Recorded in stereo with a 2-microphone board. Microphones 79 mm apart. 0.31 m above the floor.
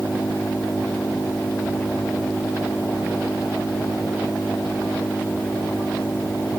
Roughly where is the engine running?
Centre.